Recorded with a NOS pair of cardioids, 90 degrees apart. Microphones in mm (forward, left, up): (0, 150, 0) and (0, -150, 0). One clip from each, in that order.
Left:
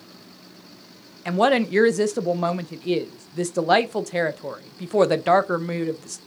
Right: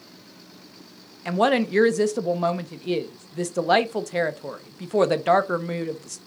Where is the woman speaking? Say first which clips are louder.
Left 2 dB; 5° left, 0.9 m.